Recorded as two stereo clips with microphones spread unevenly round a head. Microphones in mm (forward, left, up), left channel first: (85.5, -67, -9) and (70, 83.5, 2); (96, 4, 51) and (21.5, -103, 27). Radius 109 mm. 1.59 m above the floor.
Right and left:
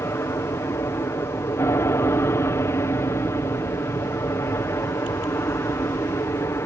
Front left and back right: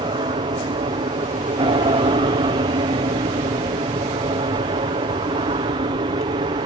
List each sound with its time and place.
0.0 s an aircraft: 155° right